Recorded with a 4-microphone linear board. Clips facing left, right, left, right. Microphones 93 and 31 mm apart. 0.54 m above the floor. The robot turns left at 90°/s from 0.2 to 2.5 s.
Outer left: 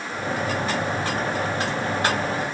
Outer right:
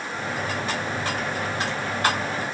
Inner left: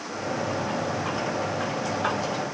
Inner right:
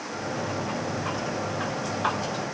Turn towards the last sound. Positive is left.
No sound to turn to.